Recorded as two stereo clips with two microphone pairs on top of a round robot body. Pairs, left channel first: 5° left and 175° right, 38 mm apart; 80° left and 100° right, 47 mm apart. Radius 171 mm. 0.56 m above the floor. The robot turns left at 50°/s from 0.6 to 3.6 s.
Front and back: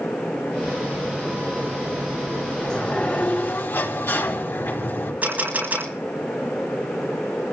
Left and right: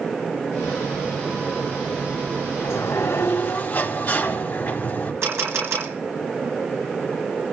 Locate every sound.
2.6 s a sliding door: 75° left, 4.5 m; by 5.1 s 25° left, 4.5 m
5.2 s a camera shutter: 120° right, 10 m